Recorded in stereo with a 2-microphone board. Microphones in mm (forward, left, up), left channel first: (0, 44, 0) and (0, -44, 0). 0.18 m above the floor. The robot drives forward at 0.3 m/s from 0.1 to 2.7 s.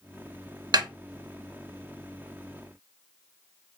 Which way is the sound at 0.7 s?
50° right (ahead or behind).